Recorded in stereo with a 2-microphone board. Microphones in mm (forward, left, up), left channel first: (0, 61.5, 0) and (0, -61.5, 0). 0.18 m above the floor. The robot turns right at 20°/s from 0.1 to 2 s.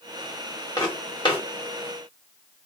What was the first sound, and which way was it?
Footsteps, 30° left (ahead or behind).